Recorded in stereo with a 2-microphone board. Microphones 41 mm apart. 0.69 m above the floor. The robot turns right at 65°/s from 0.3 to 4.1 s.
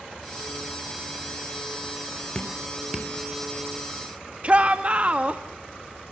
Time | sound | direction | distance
2.4 | dripping | 25° left (ahead or behind) | 2.5 m
4.4 | a shout | 30° right (ahead or behind) | 1.3 m